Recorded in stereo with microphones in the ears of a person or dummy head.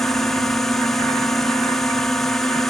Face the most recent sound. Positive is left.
turn(degrees=0)  # may be behind; listen again after turning